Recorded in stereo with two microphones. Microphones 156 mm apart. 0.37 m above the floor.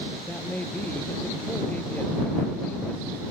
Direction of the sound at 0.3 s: 10° left (ahead or behind).